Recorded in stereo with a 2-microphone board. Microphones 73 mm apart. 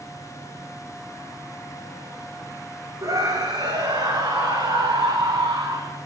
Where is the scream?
60° right (ahead or behind), 6 m; by 6.0 s 80° right, 9 m.